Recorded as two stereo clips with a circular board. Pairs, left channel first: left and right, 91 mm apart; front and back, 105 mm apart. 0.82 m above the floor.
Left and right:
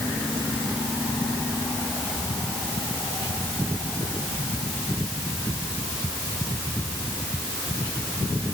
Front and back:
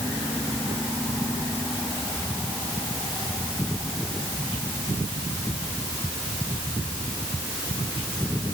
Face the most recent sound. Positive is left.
No sound to turn to.